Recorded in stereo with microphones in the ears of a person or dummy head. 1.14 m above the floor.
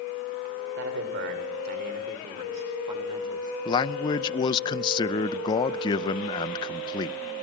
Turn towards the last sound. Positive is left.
turn(degrees=25)  # may be behind; listen again after turning